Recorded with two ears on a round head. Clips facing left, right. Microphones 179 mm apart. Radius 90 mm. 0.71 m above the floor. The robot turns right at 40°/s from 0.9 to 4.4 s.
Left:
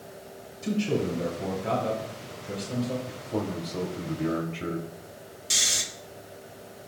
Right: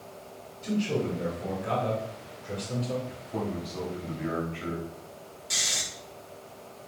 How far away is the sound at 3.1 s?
About 3 m.